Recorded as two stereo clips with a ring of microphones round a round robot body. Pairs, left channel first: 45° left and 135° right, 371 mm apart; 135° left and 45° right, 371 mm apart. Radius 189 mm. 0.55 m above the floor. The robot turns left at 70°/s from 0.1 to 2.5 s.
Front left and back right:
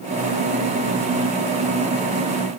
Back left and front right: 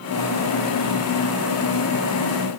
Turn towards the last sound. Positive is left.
No sound to turn to.